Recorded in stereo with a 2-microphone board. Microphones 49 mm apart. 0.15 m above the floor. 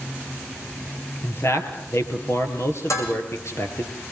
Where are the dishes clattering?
80° left, 6 m.